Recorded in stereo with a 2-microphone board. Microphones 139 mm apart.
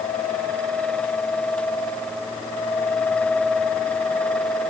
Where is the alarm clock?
No alarm clock in this recording.